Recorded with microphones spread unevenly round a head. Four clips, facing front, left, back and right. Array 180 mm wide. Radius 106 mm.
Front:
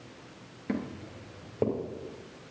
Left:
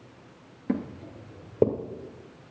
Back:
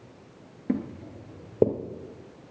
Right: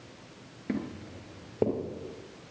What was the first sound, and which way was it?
Footsteps, 60° left.